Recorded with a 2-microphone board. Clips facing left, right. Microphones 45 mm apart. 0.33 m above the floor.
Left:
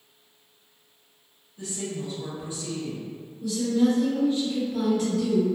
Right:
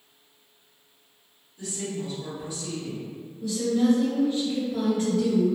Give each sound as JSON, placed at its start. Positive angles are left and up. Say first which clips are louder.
{"t": 1.6, "sound": "a woman speaking", "louder": "even", "side_deg": 25, "distance_m": 1.3}
{"t": 3.4, "sound": "a woman speaking", "louder": "left 1 dB", "side_deg": -35, "distance_m": 1.6}